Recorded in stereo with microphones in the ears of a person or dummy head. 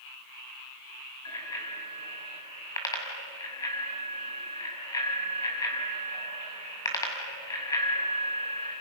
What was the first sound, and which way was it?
A bicycle bell, 20° left (ahead or behind).